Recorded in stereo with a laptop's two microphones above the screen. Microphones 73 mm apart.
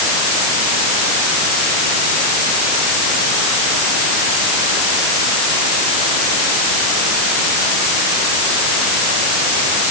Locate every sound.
Only background noise.